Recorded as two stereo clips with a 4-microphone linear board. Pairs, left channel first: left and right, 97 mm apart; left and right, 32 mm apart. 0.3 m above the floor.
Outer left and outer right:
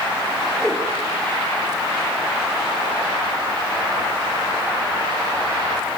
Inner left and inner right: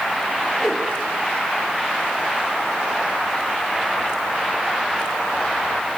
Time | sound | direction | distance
0.6 | a whoosh | centre (ahead or behind) | 3.5 m